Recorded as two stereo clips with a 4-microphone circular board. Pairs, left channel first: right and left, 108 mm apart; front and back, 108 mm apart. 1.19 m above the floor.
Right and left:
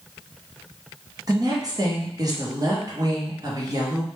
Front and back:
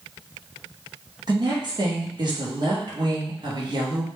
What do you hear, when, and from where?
1.3 s a woman speaking: 140° left, 0.8 m